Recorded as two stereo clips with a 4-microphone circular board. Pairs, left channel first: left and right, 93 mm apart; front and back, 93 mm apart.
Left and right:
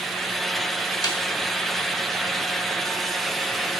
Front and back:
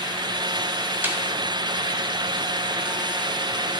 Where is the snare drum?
120° left, 1.1 m.